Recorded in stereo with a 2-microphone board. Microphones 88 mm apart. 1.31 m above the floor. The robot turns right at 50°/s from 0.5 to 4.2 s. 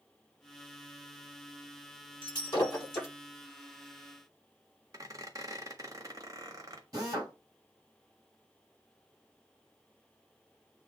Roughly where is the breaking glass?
Left.